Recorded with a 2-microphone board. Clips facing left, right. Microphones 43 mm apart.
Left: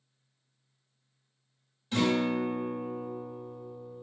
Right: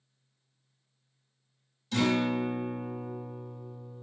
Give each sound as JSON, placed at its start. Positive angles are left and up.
{"t": 1.9, "sound": "a guitar", "side_deg": 25, "distance_m": 0.8}